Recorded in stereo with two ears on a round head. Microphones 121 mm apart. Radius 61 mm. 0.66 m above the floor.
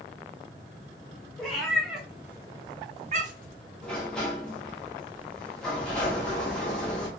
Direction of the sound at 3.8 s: 5° left (ahead or behind).